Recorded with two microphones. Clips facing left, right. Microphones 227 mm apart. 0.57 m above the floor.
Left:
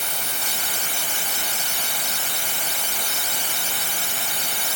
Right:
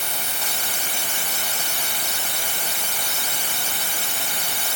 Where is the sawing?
No sawing in this recording.